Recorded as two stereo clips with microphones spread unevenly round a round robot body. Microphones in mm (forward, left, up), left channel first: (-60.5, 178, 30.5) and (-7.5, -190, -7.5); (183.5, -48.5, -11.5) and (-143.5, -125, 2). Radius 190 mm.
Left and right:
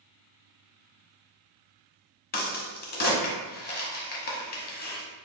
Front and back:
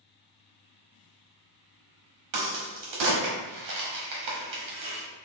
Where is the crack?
165° left, 0.9 m.